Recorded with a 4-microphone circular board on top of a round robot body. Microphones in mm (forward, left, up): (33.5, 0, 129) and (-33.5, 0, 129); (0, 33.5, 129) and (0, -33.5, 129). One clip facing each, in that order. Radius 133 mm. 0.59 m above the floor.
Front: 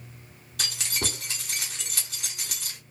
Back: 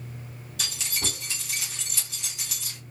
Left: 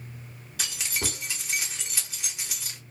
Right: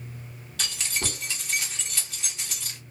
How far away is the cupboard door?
No cupboard door in this recording.